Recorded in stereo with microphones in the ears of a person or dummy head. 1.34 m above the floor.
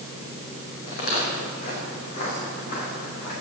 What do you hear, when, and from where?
0.9 s footsteps: 45° left (ahead or behind), 4 m; by 3.3 s 50° left (ahead or behind), 7 m